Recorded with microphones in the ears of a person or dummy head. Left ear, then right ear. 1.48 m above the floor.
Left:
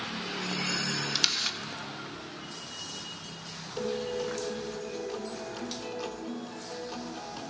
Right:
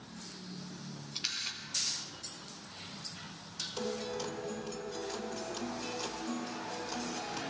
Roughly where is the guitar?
Centre.